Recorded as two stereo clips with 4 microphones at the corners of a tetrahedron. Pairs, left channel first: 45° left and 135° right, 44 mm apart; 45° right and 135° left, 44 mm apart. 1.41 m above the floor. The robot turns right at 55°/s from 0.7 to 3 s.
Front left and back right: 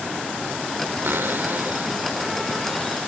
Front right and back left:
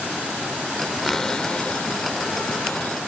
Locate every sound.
1.0 s a cupboard door: 130° right; by 3.0 s 20° right